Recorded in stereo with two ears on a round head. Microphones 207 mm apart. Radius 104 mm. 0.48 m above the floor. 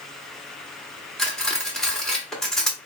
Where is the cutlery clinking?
Centre (ahead or behind), 0.8 m.